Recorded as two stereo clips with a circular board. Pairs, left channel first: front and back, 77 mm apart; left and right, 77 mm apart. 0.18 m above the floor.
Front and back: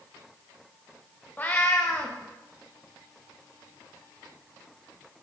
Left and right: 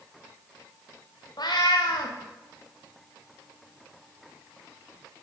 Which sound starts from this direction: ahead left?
A cat meowing, at 1.4 s.